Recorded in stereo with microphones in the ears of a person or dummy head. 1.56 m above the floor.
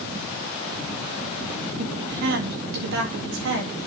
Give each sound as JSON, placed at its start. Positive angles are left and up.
{"t": 1.8, "sound": "a woman speaking", "side_deg": -60, "distance_m": 2.5}